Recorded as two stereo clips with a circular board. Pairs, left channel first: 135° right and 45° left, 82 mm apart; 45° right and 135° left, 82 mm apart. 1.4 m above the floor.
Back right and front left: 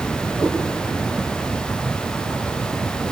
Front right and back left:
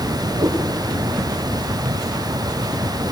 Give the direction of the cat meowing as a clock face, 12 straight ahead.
7 o'clock.